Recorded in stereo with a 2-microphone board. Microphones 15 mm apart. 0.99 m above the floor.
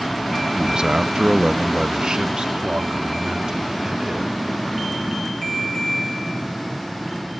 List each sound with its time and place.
0.6 s a man speaking: 60° right (ahead or behind); by 4.3 s 65° right (ahead or behind)